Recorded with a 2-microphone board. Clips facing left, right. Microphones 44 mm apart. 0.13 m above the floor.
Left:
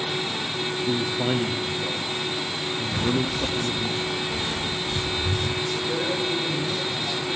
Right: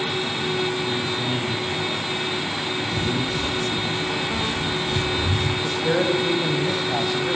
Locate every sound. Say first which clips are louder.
0.8 s a man speaking: even; 40° left (ahead or behind), 5.5 m
2.9 s footsteps: left 2 dB; 35° left (ahead or behind), 1.3 m; by 5.5 s 20° right (ahead or behind), 4 m
5.6 s a man speaking: right 5 dB; 75° right (ahead or behind), 8 m